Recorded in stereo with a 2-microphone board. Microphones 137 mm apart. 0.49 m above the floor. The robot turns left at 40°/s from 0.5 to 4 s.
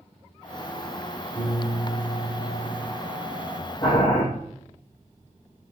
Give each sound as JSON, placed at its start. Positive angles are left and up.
{"t": 1.4, "sound": "a piano", "azimuth_deg": 160, "distance_m": 2.0}
{"t": 3.8, "sound": "boiling", "side_deg": 40, "distance_m": 3.0}